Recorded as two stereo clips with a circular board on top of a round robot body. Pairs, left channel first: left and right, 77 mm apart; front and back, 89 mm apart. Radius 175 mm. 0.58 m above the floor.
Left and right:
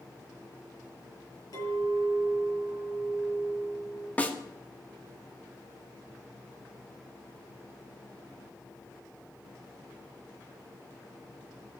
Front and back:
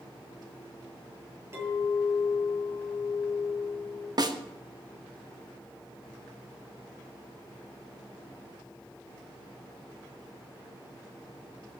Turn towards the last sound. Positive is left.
turn(degrees=155)